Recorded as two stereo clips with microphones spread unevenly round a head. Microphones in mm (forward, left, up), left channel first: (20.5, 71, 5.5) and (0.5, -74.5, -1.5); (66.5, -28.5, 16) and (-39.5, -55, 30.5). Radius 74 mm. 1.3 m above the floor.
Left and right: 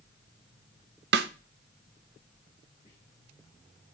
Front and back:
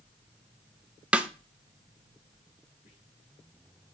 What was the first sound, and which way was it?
A snare drum, 85° right.